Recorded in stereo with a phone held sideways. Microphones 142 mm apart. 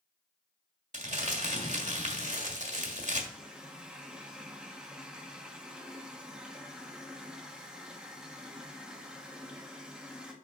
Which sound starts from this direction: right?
Crumpling, at 0.9 s.